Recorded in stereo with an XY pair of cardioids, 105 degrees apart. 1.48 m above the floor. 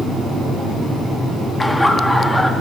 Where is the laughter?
10° left, 3.5 m.